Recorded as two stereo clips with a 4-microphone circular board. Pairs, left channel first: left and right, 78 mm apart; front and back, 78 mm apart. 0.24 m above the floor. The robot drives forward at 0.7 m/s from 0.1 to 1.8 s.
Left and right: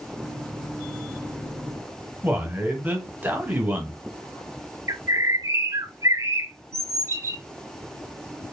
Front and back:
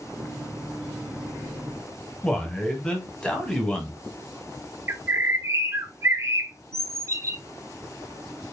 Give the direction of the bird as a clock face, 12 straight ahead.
4 o'clock.